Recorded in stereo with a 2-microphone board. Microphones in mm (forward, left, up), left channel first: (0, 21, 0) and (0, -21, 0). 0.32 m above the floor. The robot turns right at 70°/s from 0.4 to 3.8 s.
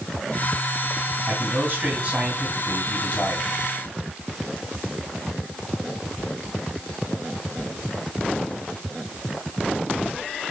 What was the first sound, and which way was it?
A man speaking, 90° right.